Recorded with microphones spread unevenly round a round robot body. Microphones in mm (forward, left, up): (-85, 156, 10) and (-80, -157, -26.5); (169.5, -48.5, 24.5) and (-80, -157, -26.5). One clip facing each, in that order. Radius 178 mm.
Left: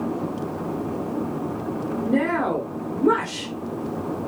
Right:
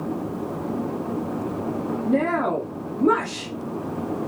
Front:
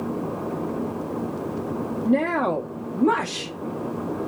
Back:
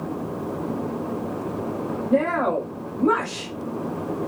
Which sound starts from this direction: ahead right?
A woman speaking, at 2.0 s.